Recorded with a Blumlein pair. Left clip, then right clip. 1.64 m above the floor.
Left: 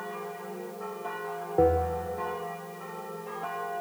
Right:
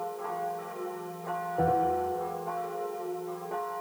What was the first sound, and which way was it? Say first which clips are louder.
A bell: left 2 dB; 25° left.